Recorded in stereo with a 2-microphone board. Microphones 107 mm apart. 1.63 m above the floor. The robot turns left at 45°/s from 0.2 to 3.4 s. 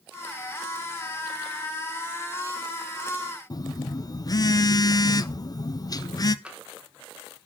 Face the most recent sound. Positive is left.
turn(degrees=-10)  # may be behind; listen again after turning